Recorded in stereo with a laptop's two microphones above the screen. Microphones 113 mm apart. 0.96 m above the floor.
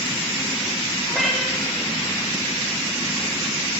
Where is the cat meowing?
Centre (ahead or behind), 6.5 m.